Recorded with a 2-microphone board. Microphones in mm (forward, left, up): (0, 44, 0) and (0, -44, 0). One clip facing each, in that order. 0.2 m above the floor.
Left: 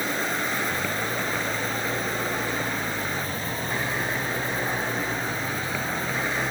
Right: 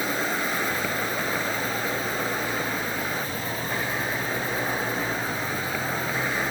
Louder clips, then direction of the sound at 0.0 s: Right 1 dB; 5° right (ahead or behind).